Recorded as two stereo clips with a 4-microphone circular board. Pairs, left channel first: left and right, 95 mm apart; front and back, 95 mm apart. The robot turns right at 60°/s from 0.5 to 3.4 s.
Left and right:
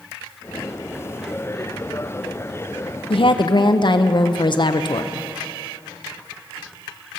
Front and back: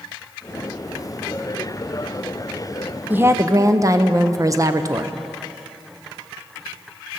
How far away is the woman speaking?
About 0.5 m.